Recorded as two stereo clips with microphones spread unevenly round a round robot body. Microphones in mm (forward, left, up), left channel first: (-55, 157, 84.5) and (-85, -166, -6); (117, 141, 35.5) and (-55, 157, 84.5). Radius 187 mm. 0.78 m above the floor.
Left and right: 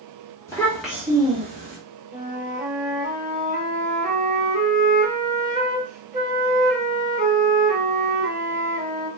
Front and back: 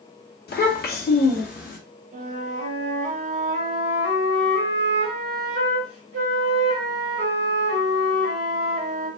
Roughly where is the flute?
Behind.